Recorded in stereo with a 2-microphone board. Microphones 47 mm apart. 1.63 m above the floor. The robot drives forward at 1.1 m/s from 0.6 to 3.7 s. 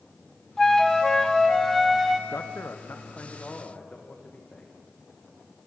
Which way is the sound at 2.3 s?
70° left (ahead or behind).